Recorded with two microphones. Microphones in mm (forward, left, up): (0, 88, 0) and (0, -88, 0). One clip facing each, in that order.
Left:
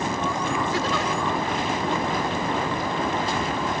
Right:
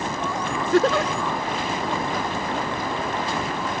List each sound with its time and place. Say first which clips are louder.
0.7 s a giggle: right 6 dB; 65° right (ahead or behind)